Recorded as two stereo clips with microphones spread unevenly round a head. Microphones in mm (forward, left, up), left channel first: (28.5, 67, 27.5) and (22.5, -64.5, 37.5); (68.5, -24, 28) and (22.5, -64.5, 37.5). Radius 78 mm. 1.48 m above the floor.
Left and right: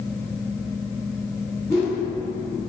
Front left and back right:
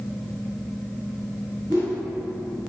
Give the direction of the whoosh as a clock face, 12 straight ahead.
7 o'clock.